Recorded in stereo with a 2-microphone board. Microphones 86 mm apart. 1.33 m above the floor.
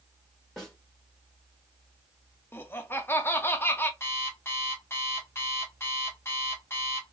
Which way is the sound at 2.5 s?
25° left (ahead or behind).